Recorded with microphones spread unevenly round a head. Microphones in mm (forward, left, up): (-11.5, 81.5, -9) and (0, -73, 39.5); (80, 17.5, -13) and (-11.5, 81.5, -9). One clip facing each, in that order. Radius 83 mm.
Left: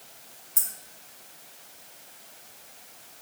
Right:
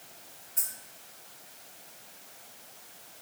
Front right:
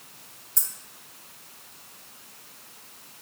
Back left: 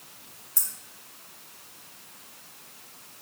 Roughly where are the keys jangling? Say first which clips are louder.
Left 2 dB, front right 1 dB; ahead left.